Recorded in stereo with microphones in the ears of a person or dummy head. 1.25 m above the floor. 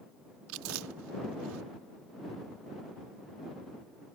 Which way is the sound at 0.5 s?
80° right.